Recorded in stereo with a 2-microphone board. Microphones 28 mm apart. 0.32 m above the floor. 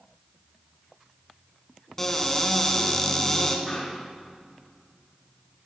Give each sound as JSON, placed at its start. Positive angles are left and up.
{"t": 2.0, "sound": "a cupboard door", "side_deg": 15, "distance_m": 1.5}
{"t": 3.7, "sound": "a pop", "side_deg": 25, "distance_m": 5.0}